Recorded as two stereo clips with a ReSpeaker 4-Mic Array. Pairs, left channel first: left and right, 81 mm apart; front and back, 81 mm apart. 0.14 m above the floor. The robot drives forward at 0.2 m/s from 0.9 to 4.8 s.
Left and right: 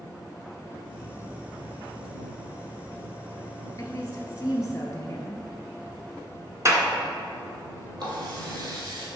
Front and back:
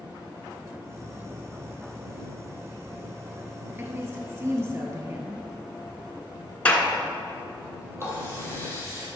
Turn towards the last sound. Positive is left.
turn(degrees=-125)